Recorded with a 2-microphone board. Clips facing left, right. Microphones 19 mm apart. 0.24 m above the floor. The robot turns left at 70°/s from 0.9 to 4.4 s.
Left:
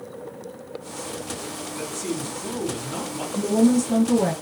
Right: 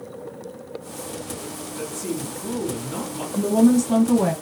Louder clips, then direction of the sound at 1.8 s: Right 1 dB; 20° left (ahead or behind).